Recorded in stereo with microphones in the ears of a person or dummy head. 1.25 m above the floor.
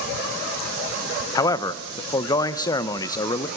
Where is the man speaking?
25° left (ahead or behind), 0.6 m.